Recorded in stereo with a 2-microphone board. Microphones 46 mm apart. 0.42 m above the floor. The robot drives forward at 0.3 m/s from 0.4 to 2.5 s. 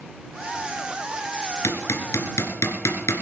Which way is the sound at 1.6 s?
80° left.